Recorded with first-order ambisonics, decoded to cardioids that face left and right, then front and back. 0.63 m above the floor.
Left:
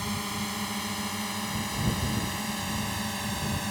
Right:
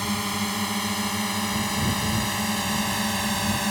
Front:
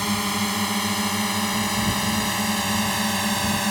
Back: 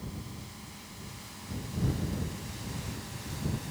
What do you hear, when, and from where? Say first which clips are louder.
0.0 s a drone: right 6 dB, front 22 dB; 20° right; by 3.7 s 25° right